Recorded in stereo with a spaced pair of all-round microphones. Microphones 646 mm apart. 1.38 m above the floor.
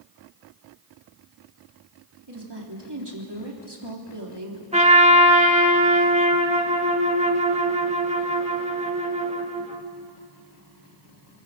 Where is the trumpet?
10° right (ahead or behind), 1.5 m.